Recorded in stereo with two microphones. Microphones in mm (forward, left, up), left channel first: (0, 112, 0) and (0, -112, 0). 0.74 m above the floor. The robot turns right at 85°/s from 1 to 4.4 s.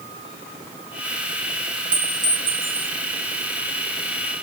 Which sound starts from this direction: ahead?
A clink, at 1.9 s.